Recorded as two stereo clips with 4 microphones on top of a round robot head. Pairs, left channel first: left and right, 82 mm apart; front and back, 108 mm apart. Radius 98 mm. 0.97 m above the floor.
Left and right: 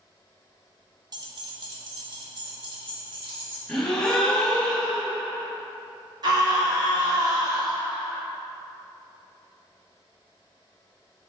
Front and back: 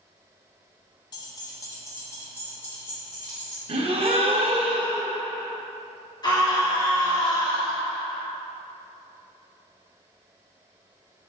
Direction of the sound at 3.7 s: 170° left.